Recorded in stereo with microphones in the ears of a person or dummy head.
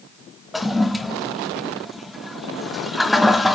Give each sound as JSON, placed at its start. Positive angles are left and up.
{"t": 0.5, "sound": "a toilet flushing", "side_deg": -5, "distance_m": 0.6}